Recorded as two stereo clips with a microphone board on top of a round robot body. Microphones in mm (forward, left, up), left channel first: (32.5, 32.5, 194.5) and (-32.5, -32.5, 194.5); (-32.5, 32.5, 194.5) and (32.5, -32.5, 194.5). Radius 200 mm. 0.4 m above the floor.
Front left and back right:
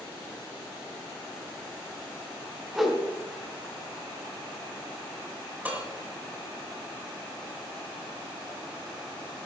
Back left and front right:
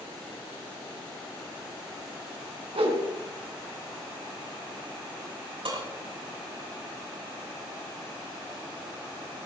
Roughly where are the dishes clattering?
Ahead right.